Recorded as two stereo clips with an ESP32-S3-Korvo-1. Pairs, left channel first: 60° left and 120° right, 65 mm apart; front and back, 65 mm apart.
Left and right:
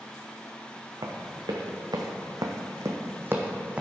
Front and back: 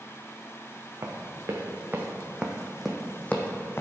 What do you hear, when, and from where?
1.0 s running footsteps: 135° right, 1.8 m; by 3.8 s 50° right, 1.2 m